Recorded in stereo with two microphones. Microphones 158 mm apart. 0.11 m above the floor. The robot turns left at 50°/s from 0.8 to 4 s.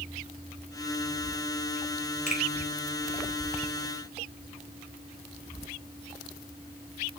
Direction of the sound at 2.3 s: 50° left (ahead or behind).